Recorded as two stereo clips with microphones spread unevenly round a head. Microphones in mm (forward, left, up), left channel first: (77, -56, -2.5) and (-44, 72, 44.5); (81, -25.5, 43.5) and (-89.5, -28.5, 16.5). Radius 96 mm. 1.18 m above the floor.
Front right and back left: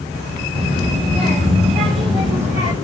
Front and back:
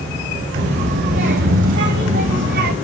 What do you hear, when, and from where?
0.6 s a child speaking: 165° right, 4 m; by 2.7 s 170° right, 5 m